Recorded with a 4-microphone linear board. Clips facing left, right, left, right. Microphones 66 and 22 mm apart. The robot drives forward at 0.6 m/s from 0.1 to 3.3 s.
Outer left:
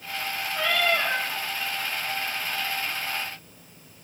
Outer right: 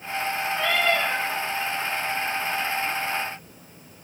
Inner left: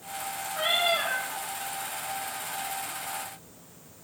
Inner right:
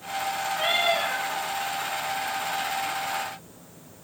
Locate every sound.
0.5 s a cat meowing: 75° right (ahead or behind), 5 m; by 1.2 s 70° right (ahead or behind), 5 m